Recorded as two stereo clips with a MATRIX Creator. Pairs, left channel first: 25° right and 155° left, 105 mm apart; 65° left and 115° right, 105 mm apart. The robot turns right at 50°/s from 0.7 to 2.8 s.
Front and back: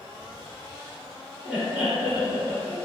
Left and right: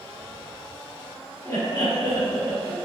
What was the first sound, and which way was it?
Laughter, 75° left.